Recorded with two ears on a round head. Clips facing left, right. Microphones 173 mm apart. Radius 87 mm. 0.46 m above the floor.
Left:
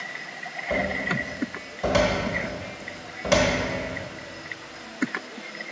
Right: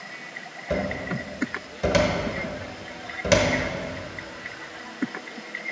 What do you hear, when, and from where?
0.7 s a cupboard door: 25° right (ahead or behind), 1.0 m